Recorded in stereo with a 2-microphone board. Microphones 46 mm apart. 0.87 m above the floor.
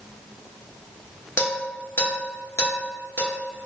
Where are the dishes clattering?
75° left (ahead or behind), 0.9 m.